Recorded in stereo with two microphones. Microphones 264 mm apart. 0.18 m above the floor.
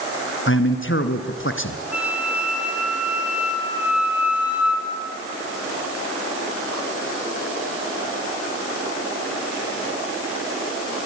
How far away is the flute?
About 3.5 m.